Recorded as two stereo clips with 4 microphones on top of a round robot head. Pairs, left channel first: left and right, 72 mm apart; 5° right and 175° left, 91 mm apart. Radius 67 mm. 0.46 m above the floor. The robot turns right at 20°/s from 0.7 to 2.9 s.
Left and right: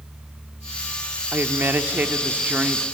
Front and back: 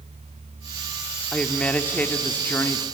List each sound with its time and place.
1.3 s a woman speaking: 70° right, 1.2 m; by 2.9 s 40° right, 1.2 m